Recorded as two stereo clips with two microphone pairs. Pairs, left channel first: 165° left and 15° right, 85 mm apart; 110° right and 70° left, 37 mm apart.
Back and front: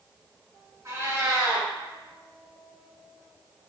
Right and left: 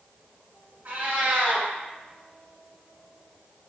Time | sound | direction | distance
0.8 | a cat meowing | 40° left | 0.6 m